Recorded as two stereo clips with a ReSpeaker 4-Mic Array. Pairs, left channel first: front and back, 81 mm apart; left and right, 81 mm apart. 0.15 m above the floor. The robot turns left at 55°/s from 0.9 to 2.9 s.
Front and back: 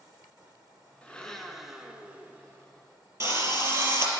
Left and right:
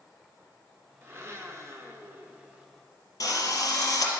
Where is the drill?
130° left, 2.0 m.